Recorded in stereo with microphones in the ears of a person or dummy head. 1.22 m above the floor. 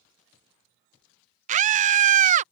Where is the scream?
45° right (ahead or behind).